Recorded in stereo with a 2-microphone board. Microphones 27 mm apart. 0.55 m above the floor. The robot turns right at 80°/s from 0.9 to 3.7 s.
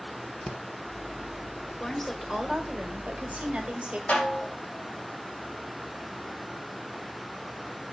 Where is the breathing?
35° left (ahead or behind), 0.9 m.